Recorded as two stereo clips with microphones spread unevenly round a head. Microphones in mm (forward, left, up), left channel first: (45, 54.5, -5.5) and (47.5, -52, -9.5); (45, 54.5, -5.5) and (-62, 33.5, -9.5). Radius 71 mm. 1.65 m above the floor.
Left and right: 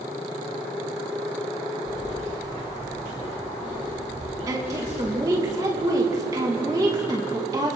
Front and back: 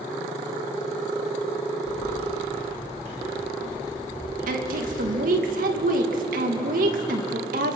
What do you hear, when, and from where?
1.9 s keys jangling: 105° right, 6 m; by 5.0 s 140° right, 6.5 m
4.5 s a woman speaking: 160° right, 2 m